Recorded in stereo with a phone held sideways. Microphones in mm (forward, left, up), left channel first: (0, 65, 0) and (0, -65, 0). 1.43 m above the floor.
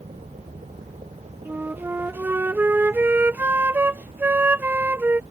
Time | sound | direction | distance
0.0 | a vehicle | 65° right (ahead or behind) | ?
1.4 | a flute | 15° right (ahead or behind) | ?